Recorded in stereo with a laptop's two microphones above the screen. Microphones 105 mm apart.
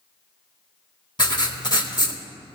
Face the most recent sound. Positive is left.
turn(degrees=45)  # may be behind; listen again after turning